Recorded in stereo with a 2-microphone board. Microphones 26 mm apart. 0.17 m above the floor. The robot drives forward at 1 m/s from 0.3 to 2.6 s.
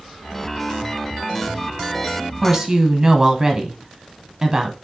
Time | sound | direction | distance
2.4 | a woman speaking | 15° right (ahead or behind) | 1.3 m